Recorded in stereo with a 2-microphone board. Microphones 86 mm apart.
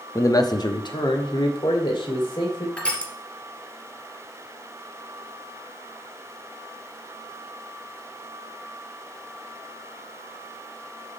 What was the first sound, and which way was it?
A man speaking, 35° left (ahead or behind).